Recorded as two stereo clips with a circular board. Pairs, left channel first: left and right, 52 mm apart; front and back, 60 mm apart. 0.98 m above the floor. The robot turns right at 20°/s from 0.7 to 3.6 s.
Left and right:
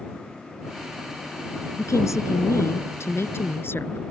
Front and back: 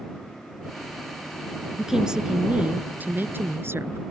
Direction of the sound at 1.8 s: 95° left.